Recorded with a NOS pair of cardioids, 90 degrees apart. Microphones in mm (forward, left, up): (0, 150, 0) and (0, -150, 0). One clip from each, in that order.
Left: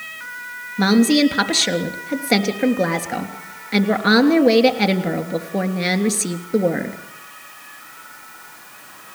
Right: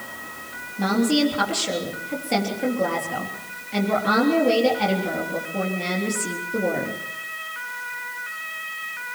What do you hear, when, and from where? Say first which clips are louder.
0.8 s a woman speaking: left 5 dB; 65° left, 3.5 m